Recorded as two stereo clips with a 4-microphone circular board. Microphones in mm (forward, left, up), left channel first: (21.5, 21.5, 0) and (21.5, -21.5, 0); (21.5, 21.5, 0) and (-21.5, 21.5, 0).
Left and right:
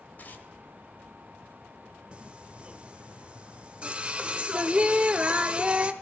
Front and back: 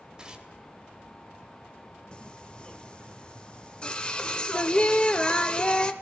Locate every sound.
0.2 s tearing paper: 115° left, 1.2 m
2.1 s singing: 50° right, 0.7 m